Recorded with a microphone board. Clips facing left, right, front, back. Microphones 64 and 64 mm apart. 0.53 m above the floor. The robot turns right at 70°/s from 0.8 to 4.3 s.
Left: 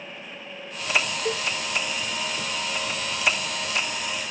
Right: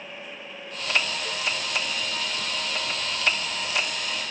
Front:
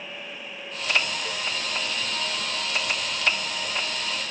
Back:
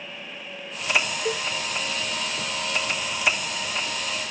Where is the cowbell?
135° left; by 1.4 s 145° left.